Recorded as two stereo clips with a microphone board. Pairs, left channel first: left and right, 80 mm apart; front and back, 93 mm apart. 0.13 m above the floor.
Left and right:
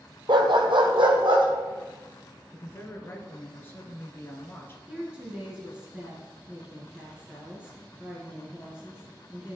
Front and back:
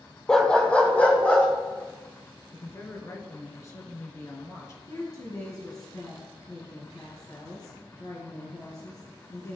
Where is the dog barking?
85° right, 1.0 m; by 1.5 s 75° right, 2.5 m.